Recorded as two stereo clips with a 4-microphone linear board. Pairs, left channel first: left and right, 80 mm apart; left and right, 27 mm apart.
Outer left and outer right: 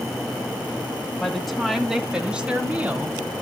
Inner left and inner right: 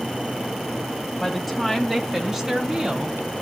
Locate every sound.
1.2 s a woman speaking: 5° left (ahead or behind), 1.5 m; by 3.2 s 30° right (ahead or behind), 1.8 m